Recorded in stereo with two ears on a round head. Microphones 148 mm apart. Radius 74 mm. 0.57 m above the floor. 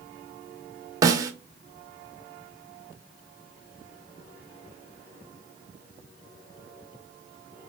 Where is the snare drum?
20° right (ahead or behind), 0.7 m.